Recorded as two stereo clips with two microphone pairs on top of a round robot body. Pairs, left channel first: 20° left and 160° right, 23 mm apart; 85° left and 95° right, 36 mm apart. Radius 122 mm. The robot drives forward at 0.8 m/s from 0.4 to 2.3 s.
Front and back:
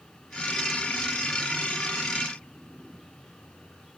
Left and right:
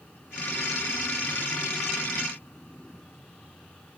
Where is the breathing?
I don't hear breathing.